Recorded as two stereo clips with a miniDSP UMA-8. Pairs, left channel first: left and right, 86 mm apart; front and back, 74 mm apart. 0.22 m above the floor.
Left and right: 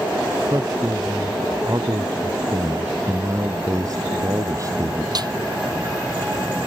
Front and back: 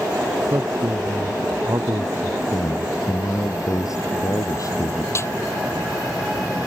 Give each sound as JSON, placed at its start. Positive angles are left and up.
{"t": 0.4, "sound": "a man speaking", "azimuth_deg": -135}
{"t": 2.5, "sound": "a man speaking", "azimuth_deg": -40}
{"t": 5.2, "sound": "a snare drum", "azimuth_deg": -55}